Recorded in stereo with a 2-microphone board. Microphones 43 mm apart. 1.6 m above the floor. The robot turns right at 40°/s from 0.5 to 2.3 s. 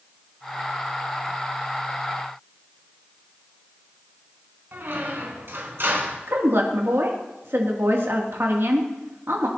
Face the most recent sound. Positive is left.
turn(degrees=-75)  # may be behind; listen again after turning